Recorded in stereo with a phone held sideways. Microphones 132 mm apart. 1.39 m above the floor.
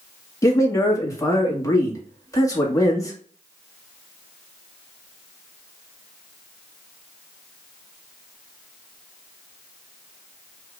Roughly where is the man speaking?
Left.